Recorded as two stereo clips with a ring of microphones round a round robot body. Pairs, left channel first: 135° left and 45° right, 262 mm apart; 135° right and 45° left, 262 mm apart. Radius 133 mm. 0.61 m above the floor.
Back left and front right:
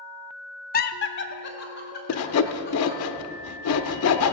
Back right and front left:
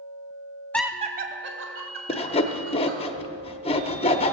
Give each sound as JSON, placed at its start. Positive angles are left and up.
{"t": 0.7, "sound": "laughter", "azimuth_deg": 150, "distance_m": 0.6}
{"t": 2.1, "sound": "sawing", "azimuth_deg": 160, "distance_m": 0.7}